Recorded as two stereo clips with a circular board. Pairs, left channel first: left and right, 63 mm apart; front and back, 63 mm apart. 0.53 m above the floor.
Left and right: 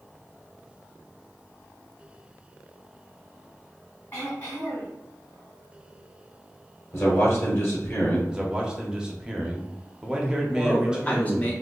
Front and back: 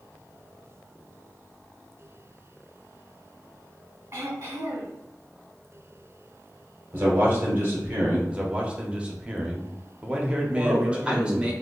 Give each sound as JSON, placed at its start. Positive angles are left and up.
{"t": 4.1, "sound": "throat clearing", "azimuth_deg": 135, "distance_m": 1.9}
{"t": 6.9, "sound": "a man speaking", "azimuth_deg": 125, "distance_m": 1.4}
{"t": 8.3, "sound": "a man speaking", "azimuth_deg": -140, "distance_m": 0.6}
{"t": 10.5, "sound": "a man speaking", "azimuth_deg": 120, "distance_m": 0.7}